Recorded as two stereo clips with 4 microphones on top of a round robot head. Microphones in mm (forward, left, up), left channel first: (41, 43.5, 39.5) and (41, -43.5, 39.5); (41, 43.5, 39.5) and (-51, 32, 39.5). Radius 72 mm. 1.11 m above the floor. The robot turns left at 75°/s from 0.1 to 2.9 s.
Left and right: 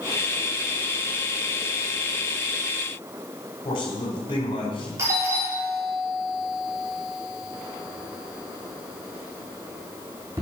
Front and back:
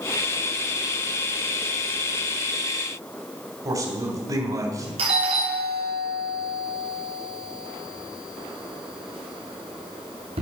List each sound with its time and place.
3.6 s a man speaking: 140° left, 3.5 m
5.0 s a doorbell: 155° right, 3.5 m